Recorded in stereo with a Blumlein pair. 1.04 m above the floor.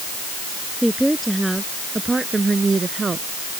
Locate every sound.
0.8 s a woman speaking: straight ahead; by 3.3 s 15° right